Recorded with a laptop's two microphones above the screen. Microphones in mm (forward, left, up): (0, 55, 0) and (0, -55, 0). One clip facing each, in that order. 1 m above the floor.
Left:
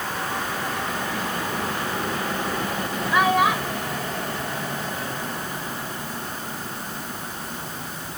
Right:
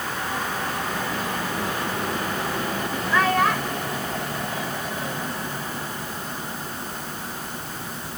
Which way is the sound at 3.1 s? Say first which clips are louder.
Left 1 dB; 15° left (ahead or behind).